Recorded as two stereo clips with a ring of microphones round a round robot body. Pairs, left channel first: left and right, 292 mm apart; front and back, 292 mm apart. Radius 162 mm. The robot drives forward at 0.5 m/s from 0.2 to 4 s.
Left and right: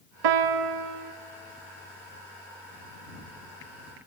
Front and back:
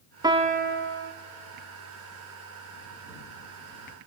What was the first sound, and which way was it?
A piano, 100° right.